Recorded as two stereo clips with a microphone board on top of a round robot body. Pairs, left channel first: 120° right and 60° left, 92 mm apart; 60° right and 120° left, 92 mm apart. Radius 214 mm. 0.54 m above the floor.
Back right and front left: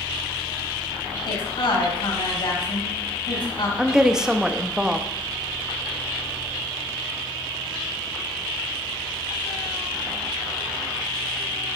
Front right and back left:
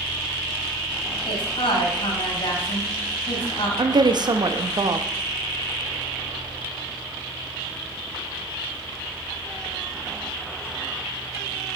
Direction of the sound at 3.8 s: 145° left.